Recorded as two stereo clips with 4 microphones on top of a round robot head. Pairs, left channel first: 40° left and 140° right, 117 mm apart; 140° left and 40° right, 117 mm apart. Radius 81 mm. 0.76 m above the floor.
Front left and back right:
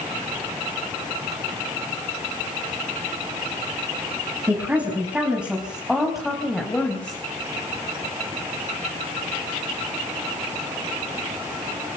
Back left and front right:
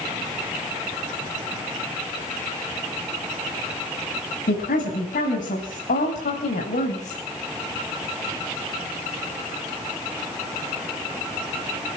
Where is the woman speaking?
140° left, 5.5 m; by 7.2 s 115° left, 4 m.